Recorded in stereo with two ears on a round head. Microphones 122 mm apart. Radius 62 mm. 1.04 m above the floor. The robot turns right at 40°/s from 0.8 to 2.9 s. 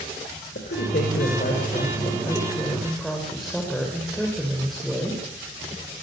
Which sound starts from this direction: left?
A woman speaking, at 0.6 s.